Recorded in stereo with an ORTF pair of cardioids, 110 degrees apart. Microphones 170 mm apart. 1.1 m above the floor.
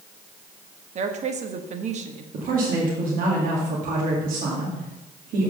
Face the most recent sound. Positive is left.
turn(degrees=-60)